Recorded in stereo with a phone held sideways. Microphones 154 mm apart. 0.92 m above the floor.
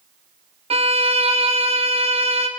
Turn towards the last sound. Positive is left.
turn(degrees=-40)  # may be behind; listen again after turning